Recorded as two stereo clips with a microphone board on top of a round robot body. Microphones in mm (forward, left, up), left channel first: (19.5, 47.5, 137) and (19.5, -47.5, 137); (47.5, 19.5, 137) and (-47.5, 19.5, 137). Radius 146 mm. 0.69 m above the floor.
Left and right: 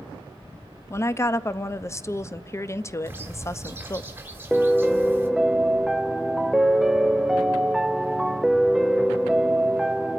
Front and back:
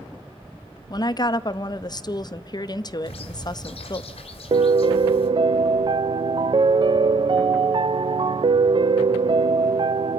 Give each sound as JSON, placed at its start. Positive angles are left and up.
{"t": 0.9, "sound": "a woman speaking", "azimuth_deg": 35, "distance_m": 0.8}
{"t": 3.0, "sound": "a bird", "azimuth_deg": -20, "distance_m": 1.4}
{"t": 4.5, "sound": "a piano", "azimuth_deg": -175, "distance_m": 0.6}